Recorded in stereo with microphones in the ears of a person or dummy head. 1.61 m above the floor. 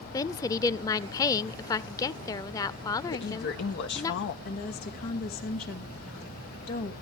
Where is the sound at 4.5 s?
45° left (ahead or behind), 2 m.